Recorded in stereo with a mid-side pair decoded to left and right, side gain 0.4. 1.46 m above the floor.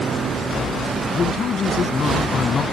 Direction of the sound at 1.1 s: 60° left.